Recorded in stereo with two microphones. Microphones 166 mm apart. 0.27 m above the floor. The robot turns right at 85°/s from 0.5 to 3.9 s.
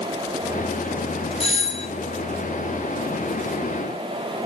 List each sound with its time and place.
1.4 s a doorbell: 65° left, 2 m; by 1.9 s 105° left, 2 m